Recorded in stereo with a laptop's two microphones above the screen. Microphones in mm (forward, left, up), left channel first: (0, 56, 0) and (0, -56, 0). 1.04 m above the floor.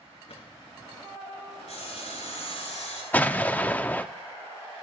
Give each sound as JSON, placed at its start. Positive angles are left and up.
{"t": 0.3, "sound": "a drawer", "side_deg": 65, "distance_m": 4.0}
{"t": 1.7, "sound": "sawing", "side_deg": 75, "distance_m": 6.5}
{"t": 3.1, "sound": "an explosion", "side_deg": 15, "distance_m": 0.5}